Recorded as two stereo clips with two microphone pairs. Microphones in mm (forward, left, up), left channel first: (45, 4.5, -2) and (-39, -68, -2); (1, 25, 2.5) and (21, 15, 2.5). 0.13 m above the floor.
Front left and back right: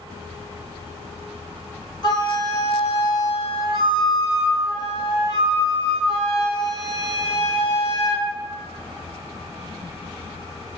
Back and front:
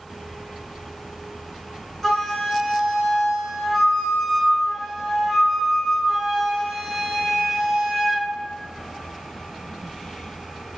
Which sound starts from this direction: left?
A flute, at 2.0 s.